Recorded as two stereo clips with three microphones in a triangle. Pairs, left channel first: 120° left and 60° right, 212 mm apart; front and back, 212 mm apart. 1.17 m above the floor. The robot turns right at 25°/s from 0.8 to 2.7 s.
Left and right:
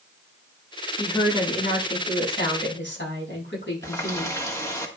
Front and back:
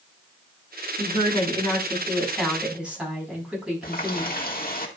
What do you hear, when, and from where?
1.0 s a woman speaking: 50° left, 7.5 m; by 4.4 s 95° left, 7.5 m
3.8 s a running tap: 45° left, 1.6 m